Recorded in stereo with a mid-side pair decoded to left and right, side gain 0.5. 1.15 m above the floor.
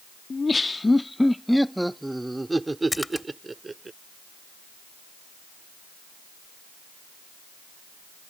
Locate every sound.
0.3 s laughter: 30° left; by 3.9 s 25° right
2.9 s a splash: 15° left